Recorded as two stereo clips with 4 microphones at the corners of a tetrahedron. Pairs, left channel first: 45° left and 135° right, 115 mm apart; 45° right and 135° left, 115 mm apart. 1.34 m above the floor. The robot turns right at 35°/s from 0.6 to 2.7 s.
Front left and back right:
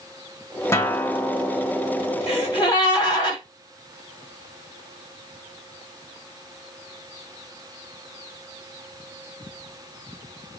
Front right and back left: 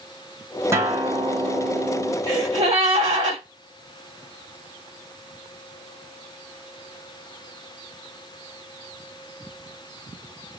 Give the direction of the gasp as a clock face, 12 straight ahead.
9 o'clock.